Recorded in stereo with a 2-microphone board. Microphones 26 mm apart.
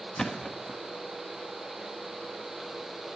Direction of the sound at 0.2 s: 25° left (ahead or behind).